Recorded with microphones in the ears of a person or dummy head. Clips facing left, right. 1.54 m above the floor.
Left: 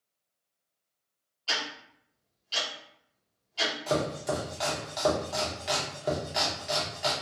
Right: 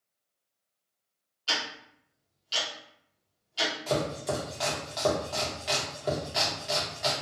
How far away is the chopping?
About 0.8 m.